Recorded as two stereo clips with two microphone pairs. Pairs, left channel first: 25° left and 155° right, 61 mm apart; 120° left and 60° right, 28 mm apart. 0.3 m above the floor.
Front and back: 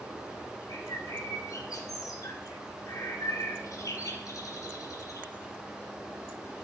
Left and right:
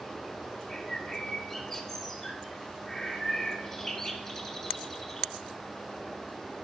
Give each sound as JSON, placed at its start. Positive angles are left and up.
{"t": 0.7, "sound": "a bird", "azimuth_deg": 45, "distance_m": 1.1}